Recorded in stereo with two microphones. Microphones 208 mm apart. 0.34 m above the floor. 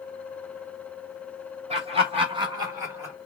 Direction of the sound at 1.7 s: 30° right (ahead or behind).